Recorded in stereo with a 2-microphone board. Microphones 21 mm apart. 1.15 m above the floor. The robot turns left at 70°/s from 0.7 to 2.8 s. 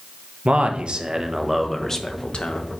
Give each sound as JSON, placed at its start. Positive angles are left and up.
{"t": 0.5, "sound": "a man speaking", "azimuth_deg": -115, "distance_m": 0.8}